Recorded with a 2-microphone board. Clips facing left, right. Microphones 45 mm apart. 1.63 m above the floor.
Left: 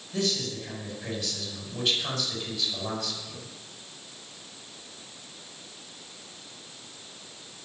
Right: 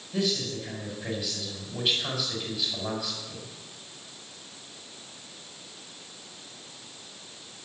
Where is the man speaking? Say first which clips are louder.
Right 1 dB; 5° right (ahead or behind), 6 m.